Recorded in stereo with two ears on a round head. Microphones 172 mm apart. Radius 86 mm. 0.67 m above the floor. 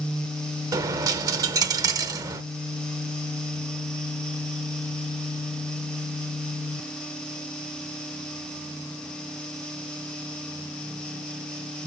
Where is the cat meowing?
No cat meowing in this recording.